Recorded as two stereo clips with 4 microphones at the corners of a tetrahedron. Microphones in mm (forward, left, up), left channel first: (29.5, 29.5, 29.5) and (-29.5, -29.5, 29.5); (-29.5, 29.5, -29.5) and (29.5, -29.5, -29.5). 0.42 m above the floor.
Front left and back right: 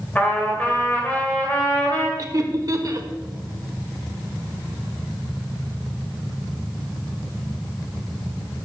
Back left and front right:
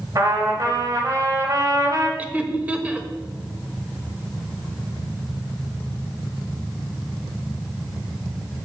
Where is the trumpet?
20° right, 2 m.